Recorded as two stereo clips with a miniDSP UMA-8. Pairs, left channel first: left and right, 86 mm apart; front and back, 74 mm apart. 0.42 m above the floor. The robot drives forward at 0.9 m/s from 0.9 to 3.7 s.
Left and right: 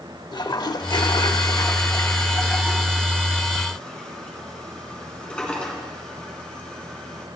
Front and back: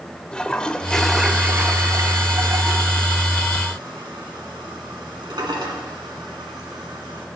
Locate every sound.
0.3 s a toilet flushing: 75° left, 0.7 m; by 7.3 s 165° left, 2.5 m